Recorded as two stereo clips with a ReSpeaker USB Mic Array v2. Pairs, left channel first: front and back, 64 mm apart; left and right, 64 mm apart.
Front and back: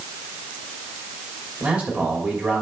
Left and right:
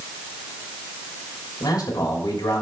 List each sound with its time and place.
1.6 s a man speaking: 110° left, 3 m